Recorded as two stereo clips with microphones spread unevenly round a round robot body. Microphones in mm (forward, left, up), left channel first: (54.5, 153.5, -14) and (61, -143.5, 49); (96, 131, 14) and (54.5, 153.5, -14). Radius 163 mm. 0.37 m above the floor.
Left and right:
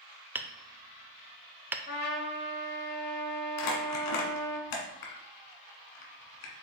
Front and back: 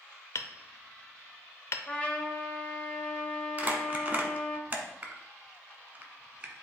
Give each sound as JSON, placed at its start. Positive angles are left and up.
{"t": 0.3, "sound": "hammering", "azimuth_deg": 10, "distance_m": 0.6}
{"t": 1.9, "sound": "a trumpet", "azimuth_deg": 55, "distance_m": 1.3}
{"t": 3.6, "sound": "crumpling", "azimuth_deg": 95, "distance_m": 1.4}